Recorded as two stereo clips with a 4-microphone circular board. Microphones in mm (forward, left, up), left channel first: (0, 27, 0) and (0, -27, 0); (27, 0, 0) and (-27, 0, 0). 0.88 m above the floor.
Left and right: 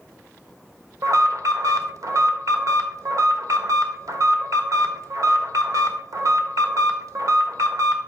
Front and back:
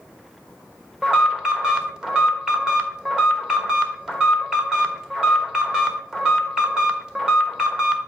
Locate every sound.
1.0 s an alarm: 100° right, 1.2 m